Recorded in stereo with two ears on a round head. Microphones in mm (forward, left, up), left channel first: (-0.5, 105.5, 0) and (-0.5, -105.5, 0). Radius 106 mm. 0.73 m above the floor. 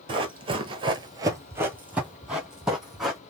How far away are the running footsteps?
About 0.9 m.